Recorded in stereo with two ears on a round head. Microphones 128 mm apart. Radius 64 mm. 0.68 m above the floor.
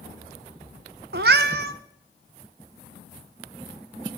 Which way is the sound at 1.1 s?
75° right (ahead or behind).